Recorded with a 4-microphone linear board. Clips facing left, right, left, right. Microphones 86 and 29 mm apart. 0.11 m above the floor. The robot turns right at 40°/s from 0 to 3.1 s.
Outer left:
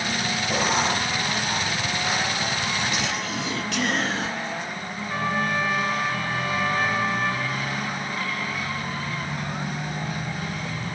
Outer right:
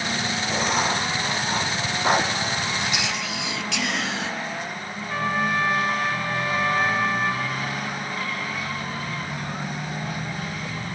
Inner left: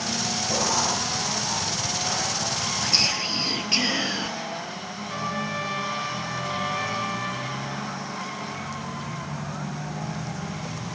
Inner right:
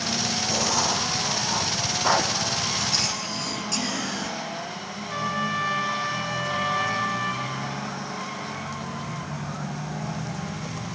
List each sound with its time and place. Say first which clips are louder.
0.5 s writing: even, inner left 1 dB; 10° left (ahead or behind), 2 m; by 2.3 s 60° right (ahead or behind), 2 m
2.8 s whispering: even, inner left 3 dB; 35° left (ahead or behind), 1.9 m; by 4.3 s 45° left (ahead or behind), 1.9 m
5.1 s a trumpet: outer right 1 dB, inner right 3 dB; centre (ahead or behind), 7 m